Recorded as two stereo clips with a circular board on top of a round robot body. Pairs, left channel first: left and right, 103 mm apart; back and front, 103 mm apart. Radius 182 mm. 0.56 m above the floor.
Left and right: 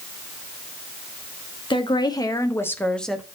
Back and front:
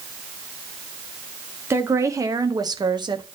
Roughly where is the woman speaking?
Ahead left.